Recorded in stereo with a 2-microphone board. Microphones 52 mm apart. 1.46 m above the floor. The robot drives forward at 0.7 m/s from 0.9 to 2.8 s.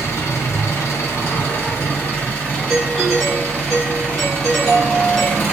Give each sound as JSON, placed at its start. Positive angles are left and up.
{"t": 0.0, "sound": "an engine running", "side_deg": 65, "distance_m": 1.1}
{"t": 2.7, "sound": "a doorbell", "side_deg": 5, "distance_m": 1.0}